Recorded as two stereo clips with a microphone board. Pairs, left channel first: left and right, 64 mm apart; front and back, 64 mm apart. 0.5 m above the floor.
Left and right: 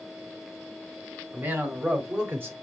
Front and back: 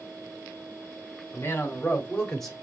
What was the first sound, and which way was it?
A man speaking, 45° right.